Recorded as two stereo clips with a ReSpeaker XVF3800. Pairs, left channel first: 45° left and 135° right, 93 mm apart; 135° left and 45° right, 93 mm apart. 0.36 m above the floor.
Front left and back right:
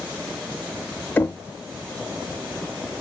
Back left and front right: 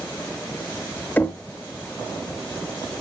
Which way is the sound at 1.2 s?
85° left.